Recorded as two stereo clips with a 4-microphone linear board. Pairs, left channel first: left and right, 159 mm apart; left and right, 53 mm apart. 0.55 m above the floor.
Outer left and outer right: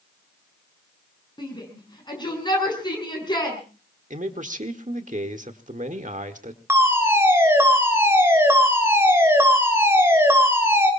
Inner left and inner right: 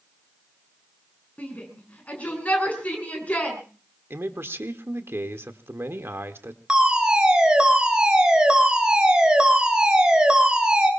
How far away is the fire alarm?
About 3.5 m.